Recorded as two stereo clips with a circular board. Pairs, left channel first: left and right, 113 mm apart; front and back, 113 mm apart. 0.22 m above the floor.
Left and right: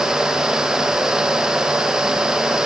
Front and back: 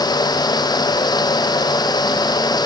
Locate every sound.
Only background noise.